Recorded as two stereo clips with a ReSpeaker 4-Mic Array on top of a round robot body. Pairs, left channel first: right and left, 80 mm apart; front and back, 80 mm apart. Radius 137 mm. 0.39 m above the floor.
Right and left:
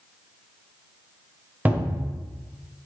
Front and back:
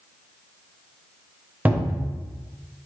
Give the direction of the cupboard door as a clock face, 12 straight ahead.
7 o'clock.